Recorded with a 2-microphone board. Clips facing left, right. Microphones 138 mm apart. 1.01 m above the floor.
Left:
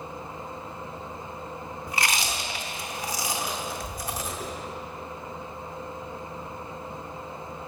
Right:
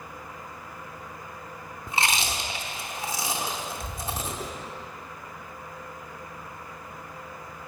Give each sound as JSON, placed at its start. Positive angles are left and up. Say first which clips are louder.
{"t": 1.9, "sound": "chewing", "louder": "right 2 dB", "side_deg": -25, "distance_m": 0.7}